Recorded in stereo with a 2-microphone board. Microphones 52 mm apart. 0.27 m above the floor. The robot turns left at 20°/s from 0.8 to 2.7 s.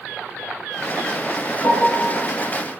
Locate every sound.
1.6 s a piano: 60° right (ahead or behind), 4.5 m; by 2.1 s 65° right (ahead or behind), 4.5 m